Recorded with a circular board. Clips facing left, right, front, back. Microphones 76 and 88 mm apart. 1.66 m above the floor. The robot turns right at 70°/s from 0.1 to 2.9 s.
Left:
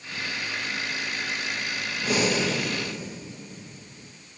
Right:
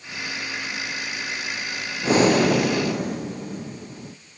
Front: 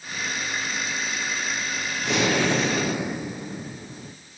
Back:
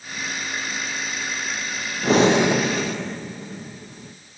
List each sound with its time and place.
2.0 s breathing: 140° right, 0.6 m; by 4.2 s 80° right, 0.6 m